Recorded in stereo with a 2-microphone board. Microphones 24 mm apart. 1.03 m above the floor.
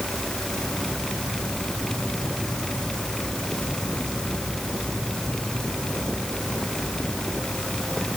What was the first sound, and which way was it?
Only background noise.